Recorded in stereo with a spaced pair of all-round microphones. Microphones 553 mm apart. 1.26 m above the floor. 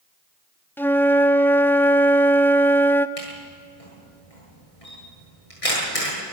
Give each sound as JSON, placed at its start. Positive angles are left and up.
{"t": 0.8, "sound": "a flute", "side_deg": 5, "distance_m": 0.6}
{"t": 3.2, "sound": "a camera shutter", "side_deg": 85, "distance_m": 9.0}